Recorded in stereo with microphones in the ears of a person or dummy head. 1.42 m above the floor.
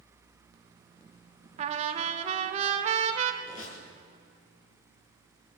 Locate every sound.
1.6 s a trumpet: 40° right (ahead or behind), 1.8 m
3.4 s a squeak: 45° left (ahead or behind), 6.5 m